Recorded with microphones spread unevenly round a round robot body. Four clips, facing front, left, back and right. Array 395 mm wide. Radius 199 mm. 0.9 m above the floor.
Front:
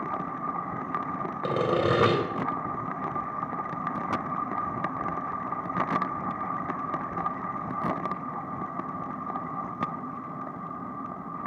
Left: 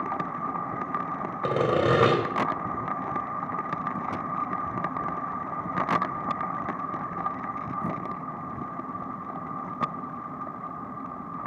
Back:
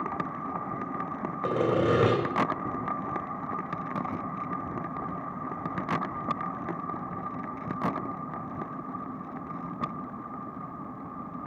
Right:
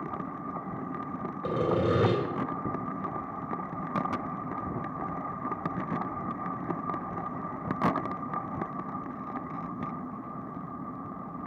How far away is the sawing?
About 3.5 m.